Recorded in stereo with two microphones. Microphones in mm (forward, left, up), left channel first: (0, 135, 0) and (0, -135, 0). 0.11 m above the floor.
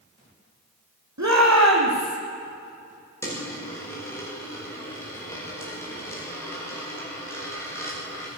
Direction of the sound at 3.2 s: 10° left (ahead or behind).